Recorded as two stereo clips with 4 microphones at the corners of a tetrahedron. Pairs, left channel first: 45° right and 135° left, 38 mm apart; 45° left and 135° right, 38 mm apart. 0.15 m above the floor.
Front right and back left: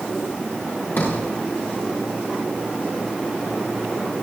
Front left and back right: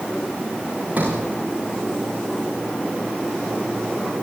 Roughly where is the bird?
I don't hear a bird.